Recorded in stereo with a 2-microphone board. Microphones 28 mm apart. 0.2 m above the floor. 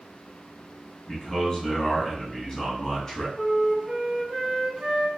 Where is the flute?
15° right (ahead or behind), 1.1 m.